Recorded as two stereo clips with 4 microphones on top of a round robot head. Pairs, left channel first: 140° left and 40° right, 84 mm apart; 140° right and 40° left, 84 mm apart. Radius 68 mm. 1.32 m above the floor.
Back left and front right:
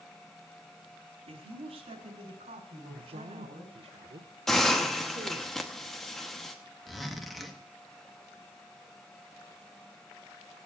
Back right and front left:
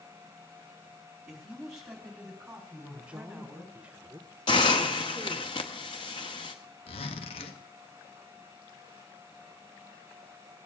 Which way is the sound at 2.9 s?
40° right.